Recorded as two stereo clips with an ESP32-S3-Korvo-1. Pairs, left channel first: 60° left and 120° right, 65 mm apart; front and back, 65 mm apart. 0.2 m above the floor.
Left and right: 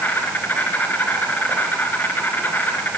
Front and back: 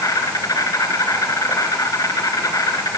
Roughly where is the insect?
Ahead.